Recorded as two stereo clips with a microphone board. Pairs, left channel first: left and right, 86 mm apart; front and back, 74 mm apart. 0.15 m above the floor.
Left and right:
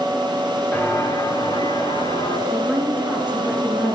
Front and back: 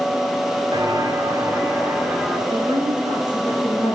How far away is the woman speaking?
About 7.5 m.